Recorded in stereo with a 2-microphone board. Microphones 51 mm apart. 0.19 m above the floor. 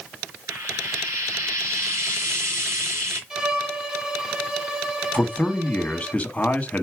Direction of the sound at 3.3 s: 10° right (ahead or behind).